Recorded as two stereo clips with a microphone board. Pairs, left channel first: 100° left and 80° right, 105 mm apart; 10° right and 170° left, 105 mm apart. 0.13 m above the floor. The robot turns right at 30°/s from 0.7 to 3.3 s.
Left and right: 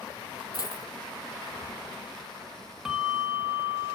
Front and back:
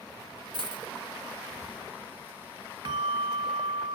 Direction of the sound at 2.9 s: 160° right.